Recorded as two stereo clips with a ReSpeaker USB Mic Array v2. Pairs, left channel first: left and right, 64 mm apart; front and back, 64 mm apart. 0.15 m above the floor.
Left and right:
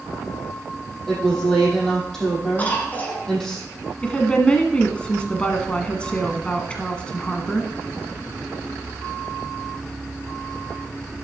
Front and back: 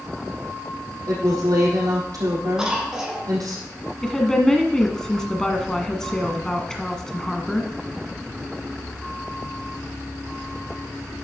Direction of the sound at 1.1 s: 170° left.